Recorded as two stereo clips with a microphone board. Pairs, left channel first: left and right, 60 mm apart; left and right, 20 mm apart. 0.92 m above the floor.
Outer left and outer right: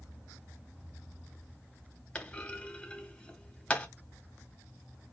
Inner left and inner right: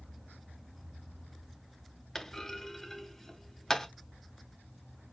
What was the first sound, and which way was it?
A clunk, 20° left (ahead or behind).